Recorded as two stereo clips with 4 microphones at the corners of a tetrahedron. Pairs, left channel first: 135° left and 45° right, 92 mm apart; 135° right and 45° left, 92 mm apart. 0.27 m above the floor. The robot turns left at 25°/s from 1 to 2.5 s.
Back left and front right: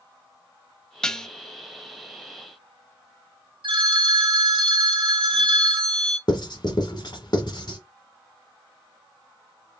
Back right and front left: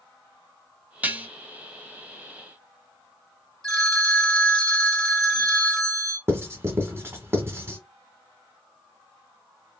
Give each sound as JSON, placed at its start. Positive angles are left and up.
{"t": 1.0, "sound": "dishes clattering", "azimuth_deg": 70, "distance_m": 0.7}
{"t": 3.6, "sound": "a phone ringing", "azimuth_deg": -50, "distance_m": 1.8}
{"t": 6.3, "sound": "writing", "azimuth_deg": 105, "distance_m": 1.5}